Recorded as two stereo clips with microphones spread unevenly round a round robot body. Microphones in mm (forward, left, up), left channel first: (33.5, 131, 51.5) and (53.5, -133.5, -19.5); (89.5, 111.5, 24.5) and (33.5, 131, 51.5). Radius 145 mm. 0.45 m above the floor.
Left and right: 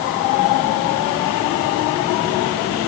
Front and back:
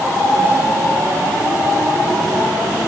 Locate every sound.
Only background noise.